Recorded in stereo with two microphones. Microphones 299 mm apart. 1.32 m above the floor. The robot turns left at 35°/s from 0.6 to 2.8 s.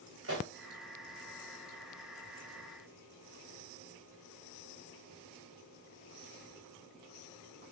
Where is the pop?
45° right (ahead or behind), 1.6 m.